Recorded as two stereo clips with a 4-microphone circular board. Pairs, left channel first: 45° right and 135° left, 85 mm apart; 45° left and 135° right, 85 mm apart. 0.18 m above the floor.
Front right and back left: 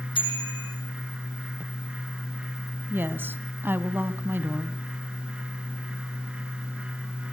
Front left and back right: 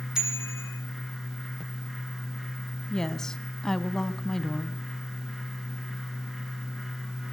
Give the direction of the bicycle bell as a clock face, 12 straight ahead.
2 o'clock.